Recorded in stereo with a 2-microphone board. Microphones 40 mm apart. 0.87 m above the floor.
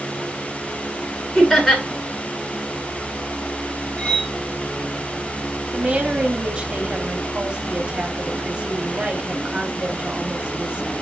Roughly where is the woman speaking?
Right.